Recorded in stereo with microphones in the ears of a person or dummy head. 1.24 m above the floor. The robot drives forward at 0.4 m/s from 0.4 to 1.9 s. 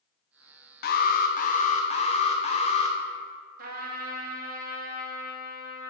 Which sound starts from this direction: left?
An alarm, at 0.8 s.